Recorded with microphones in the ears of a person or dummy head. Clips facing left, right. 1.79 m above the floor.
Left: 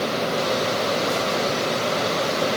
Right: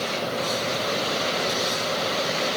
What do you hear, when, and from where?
Only background noise.